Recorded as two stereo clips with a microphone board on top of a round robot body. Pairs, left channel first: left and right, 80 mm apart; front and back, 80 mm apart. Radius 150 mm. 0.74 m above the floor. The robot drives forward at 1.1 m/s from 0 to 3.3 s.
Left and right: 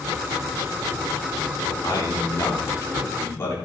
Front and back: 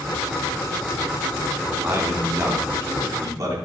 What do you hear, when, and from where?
1.7 s a man speaking: 120° left, 2.5 m; by 3.5 s 145° left, 4 m